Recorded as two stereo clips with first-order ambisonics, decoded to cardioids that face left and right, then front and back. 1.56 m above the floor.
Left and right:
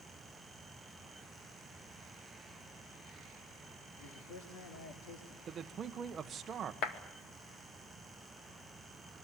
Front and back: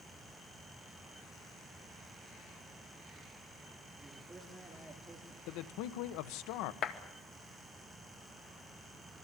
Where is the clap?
50° left, 2 m.